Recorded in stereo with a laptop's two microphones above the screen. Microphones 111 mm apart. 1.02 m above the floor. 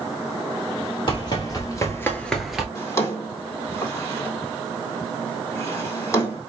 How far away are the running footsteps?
About 1.6 m.